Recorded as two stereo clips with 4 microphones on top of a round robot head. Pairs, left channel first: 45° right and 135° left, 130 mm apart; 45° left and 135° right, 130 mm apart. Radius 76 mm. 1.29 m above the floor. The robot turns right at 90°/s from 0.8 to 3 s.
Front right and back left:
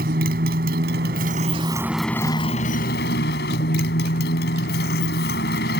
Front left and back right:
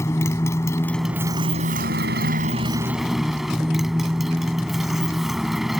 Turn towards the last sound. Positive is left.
turn(degrees=-45)